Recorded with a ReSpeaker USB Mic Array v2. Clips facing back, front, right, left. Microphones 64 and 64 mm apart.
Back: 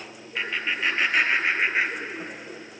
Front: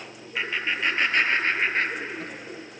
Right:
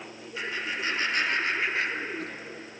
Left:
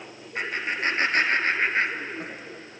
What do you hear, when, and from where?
0.3 s laughter: 90° left, 2 m; by 2.4 s 130° left, 1.3 m